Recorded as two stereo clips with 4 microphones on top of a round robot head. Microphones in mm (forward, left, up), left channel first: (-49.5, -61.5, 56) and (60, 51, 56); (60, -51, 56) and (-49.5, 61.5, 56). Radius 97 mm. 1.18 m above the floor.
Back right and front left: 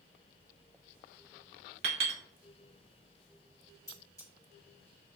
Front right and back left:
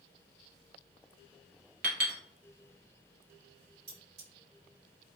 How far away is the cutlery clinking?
About 1.8 m.